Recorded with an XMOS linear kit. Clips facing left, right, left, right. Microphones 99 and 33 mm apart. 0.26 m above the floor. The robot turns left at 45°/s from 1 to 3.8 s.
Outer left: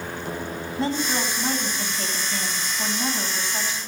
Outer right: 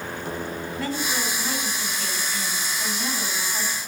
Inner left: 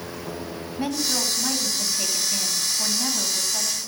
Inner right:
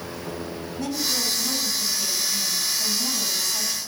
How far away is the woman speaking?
About 2 m.